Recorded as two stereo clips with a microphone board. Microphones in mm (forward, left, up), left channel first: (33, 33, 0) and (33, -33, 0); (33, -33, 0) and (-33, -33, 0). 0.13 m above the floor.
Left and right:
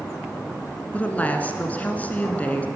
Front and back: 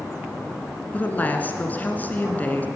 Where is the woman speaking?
40° left, 1.3 m.